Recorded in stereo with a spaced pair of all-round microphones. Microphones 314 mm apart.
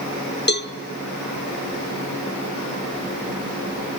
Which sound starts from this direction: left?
A cowbell, at 0.5 s.